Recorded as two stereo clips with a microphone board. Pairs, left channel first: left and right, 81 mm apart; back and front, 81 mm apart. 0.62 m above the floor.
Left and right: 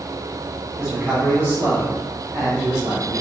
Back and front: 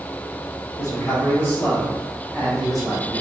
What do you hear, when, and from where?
0.8 s a man speaking: 165° right, 1.4 m; by 3.2 s 85° right, 1.5 m